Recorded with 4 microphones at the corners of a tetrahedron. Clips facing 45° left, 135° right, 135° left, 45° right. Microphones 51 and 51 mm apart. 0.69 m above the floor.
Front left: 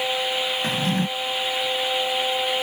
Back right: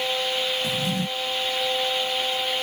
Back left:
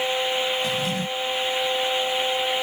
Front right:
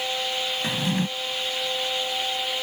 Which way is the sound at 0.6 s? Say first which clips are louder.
Front left 3 dB, even; 10° left.